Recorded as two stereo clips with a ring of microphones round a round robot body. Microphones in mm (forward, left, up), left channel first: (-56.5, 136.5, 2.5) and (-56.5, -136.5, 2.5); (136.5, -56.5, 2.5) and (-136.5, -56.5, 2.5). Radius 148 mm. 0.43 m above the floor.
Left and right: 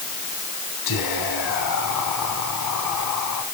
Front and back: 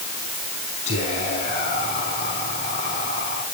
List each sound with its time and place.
0.9 s whispering: 70° left, 4.5 m